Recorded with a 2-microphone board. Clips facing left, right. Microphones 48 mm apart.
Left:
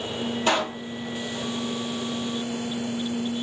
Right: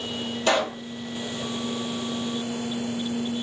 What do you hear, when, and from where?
0.5 s a pop: 20° left (ahead or behind), 2 m